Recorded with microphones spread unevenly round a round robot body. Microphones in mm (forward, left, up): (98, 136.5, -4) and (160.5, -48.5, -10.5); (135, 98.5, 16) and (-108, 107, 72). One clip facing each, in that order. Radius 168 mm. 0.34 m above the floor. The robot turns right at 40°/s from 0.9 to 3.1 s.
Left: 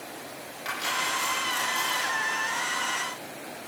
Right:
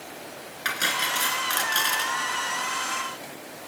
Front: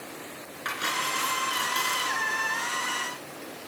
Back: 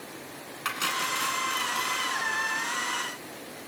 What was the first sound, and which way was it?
Cutlery clinking, 115° right.